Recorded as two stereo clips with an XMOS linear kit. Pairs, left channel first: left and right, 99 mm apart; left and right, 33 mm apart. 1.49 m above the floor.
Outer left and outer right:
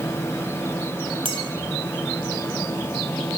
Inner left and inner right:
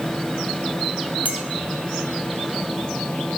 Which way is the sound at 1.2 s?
65° right (ahead or behind).